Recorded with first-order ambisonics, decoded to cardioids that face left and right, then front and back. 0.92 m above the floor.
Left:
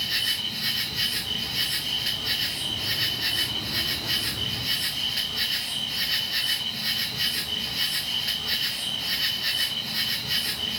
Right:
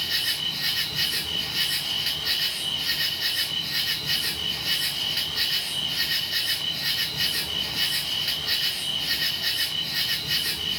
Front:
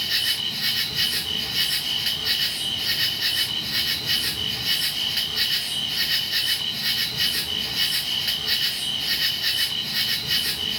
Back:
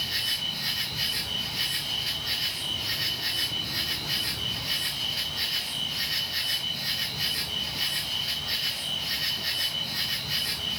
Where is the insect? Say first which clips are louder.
Even, front 5 dB; straight ahead, 1.3 m.